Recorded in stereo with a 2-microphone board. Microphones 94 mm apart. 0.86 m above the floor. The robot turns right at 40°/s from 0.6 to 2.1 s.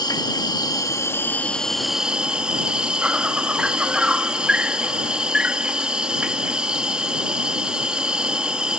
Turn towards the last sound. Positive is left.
turn(degrees=-170)